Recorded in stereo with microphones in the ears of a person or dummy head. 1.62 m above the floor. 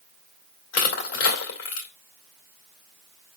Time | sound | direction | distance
0.7 | crushing | 60° left (ahead or behind) | 2 m